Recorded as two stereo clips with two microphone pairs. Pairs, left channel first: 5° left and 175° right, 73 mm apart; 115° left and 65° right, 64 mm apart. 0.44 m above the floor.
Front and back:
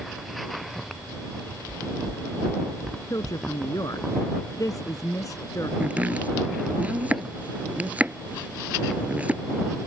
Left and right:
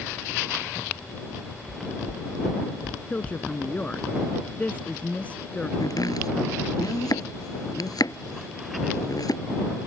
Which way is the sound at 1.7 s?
140° right.